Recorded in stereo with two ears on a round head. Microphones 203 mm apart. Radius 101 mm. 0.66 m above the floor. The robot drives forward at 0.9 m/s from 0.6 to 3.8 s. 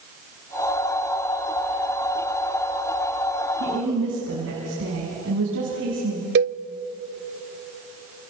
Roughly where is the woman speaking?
Right.